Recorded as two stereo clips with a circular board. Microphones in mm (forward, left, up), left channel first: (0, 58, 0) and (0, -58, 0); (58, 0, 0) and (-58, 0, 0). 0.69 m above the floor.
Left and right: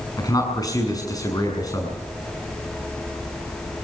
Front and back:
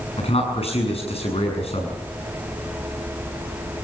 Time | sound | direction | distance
0.2 | a man speaking | 30° left | 6.5 m